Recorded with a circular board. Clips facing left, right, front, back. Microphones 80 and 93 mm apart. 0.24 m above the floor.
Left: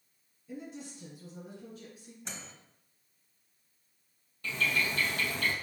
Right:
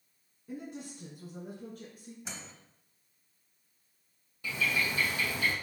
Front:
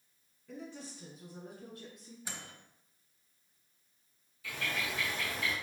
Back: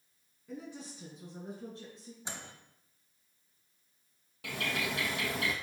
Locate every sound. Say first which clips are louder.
0.5 s a woman speaking: right 1 dB, back 1 dB; 100° right, 2 m; by 2.1 s 125° right, 2.5 m
2.2 s a microwave: left 2 dB, back 2 dB; 170° right, 0.8 m
4.4 s a bird: even, back 2 dB; 170° right, 1.3 m